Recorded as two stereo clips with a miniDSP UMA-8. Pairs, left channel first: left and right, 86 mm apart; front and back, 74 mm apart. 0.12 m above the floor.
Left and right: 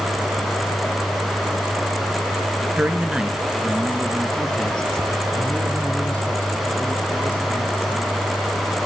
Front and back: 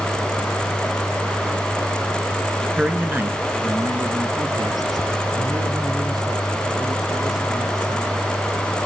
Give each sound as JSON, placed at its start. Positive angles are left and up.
{"t": 2.8, "sound": "a man speaking", "azimuth_deg": -130, "distance_m": 1.4}